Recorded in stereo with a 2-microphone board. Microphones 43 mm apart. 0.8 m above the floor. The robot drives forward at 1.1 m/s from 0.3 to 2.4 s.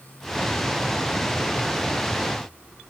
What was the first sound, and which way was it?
Only background noise.